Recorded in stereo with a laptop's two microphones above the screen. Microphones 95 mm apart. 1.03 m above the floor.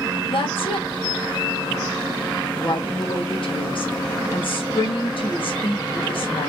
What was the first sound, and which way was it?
A woman speaking, 65° left (ahead or behind).